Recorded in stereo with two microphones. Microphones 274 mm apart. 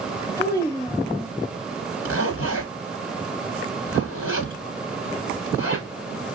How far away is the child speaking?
About 4.5 m.